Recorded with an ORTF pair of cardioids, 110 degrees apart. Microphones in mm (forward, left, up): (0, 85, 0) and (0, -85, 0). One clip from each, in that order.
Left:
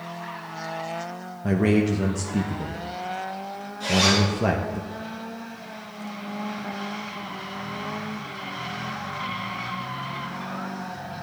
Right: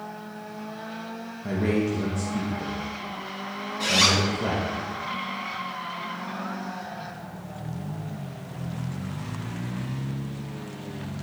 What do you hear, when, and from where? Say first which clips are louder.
1.4 s a man speaking: left 4 dB; 35° left, 1.1 m
3.8 s a zipper: even; 60° right, 4 m